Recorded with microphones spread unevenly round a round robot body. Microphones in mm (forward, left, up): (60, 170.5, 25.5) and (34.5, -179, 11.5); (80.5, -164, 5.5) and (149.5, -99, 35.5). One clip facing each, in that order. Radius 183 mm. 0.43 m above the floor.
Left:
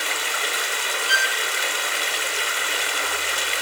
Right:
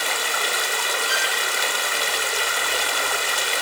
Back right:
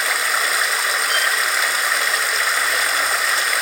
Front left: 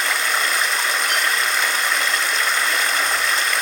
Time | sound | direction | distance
0.0 | running water | 55° right | 2 m
1.1 | a violin | 70° left | 3 m